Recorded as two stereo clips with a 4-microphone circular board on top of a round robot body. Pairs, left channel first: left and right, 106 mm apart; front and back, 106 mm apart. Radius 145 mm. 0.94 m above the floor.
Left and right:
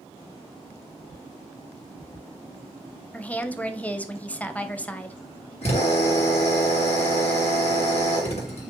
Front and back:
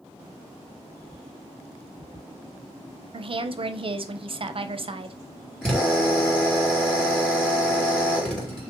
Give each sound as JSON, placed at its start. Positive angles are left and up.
{"t": 3.1, "sound": "a woman speaking", "azimuth_deg": 165, "distance_m": 0.7}
{"t": 5.6, "sound": "a drill", "azimuth_deg": 85, "distance_m": 2.5}